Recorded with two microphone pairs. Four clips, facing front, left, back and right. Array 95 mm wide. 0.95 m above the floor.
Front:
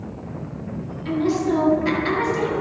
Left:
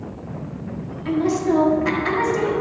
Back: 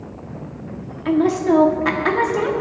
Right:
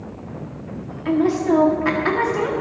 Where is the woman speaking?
155° right, 1.7 m.